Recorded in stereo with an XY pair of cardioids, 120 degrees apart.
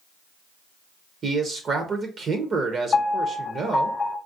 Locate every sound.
1.2 s a man speaking: 40° right, 0.5 m
2.9 s a piano: 35° left, 0.8 m